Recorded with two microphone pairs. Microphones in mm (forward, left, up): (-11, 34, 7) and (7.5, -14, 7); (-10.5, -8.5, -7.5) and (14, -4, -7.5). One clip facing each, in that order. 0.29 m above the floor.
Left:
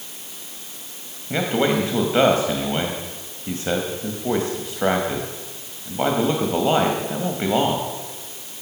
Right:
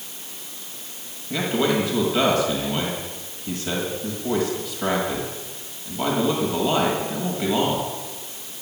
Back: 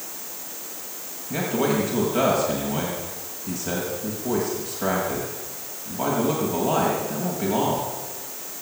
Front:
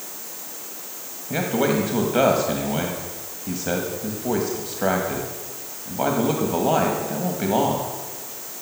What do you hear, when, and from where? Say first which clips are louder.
1.3 s a man speaking: left 2 dB, front 2 dB; 65° left, 1.5 m